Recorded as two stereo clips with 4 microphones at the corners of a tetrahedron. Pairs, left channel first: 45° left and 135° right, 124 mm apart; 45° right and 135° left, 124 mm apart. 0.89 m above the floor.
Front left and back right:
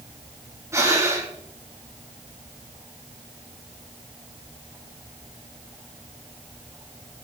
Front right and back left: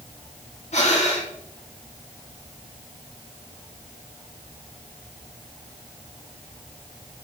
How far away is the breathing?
About 1.8 m.